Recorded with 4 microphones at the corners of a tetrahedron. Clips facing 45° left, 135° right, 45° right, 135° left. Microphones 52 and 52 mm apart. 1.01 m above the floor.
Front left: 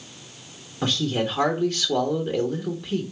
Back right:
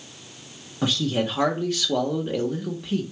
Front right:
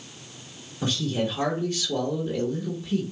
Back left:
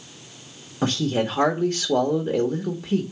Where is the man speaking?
140° left, 1.0 m.